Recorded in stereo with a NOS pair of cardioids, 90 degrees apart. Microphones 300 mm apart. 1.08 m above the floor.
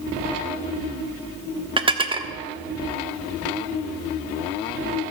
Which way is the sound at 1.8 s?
15° right.